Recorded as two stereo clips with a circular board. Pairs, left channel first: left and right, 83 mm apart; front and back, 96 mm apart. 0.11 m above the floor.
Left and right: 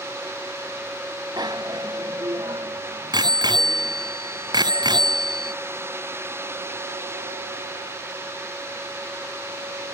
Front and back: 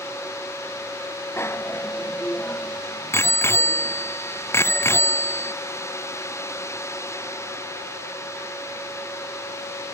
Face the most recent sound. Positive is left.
turn(degrees=-60)